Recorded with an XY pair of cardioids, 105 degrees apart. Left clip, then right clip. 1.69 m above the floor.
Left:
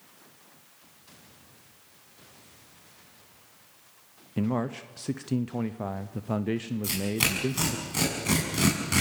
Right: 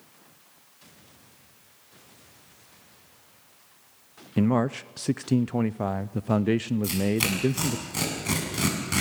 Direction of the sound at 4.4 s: 35° right.